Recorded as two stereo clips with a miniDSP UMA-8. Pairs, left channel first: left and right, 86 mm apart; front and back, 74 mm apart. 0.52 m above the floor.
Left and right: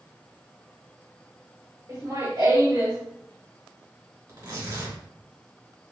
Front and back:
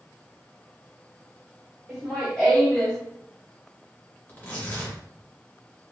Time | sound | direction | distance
1.9 | laughter | 95° right | 2 m
4.3 | tearing paper | 65° right | 1.7 m